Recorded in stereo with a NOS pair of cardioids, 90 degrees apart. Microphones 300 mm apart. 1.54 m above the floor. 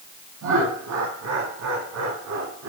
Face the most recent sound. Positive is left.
turn(degrees=-60)